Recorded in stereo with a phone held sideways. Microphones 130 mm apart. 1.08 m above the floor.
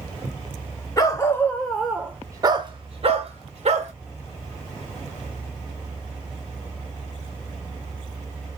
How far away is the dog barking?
About 0.8 m.